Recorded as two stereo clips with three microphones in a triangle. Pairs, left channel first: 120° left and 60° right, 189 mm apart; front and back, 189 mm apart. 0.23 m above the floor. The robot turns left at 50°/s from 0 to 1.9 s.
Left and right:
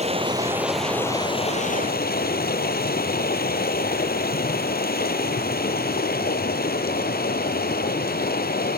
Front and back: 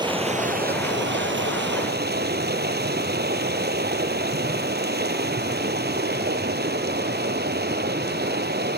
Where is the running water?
110° right, 1.6 m; by 8.8 s 155° left, 1.6 m.